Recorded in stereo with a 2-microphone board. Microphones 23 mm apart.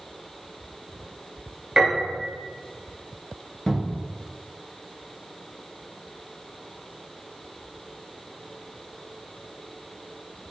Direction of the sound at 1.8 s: 35° right (ahead or behind).